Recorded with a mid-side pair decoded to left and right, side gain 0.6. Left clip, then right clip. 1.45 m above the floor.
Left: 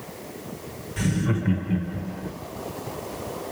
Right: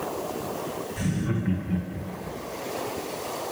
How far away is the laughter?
About 1.7 m.